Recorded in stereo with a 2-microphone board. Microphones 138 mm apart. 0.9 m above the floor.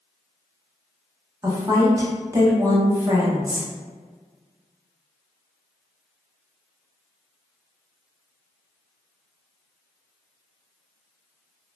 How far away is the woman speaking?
About 0.9 m.